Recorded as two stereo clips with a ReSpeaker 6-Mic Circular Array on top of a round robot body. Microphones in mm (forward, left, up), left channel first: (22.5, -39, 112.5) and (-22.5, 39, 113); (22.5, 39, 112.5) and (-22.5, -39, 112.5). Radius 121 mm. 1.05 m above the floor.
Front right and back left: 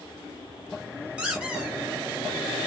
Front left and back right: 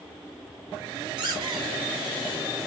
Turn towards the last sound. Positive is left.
turn(degrees=-160)